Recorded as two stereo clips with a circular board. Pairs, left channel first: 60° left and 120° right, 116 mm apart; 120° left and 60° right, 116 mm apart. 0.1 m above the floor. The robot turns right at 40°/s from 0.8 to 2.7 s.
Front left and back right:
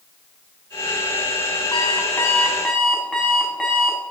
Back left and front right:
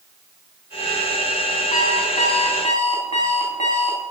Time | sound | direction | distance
1.7 | an alarm clock | 105° left | 4 m